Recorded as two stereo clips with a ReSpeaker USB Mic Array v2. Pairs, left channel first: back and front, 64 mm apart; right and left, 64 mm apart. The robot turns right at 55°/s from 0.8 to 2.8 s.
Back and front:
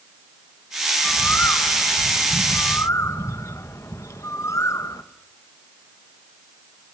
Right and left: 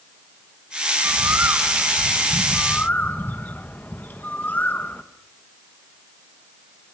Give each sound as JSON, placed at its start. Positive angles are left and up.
{"t": 1.0, "sound": "a bird", "azimuth_deg": 115, "distance_m": 1.2}